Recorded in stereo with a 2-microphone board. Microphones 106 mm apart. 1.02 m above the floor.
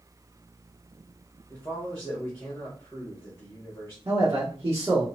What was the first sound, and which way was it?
A man speaking, 25° left (ahead or behind).